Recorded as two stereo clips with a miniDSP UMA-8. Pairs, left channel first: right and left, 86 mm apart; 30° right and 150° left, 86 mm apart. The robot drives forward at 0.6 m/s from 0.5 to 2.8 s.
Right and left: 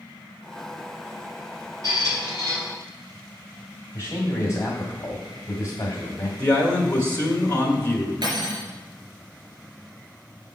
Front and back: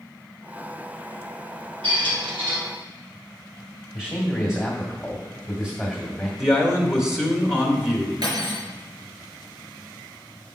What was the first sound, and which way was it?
A squeak, 140° left.